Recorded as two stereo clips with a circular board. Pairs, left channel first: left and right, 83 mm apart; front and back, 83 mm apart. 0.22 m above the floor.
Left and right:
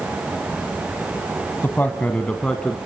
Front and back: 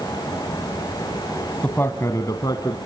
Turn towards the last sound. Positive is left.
turn(degrees=10)